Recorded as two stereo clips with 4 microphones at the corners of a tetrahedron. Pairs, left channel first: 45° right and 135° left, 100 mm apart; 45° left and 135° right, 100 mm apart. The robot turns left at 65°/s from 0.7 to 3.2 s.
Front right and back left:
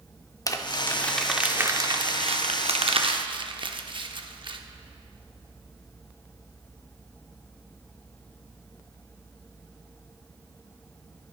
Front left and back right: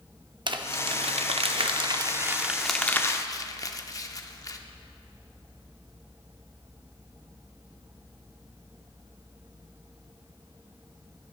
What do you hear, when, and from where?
0.5 s crumpling: 100° right, 0.6 m; by 4.6 s 100° left, 0.6 m